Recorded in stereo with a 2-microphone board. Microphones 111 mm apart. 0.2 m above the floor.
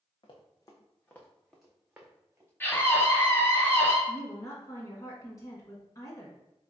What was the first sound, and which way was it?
Running footsteps, 45° left (ahead or behind).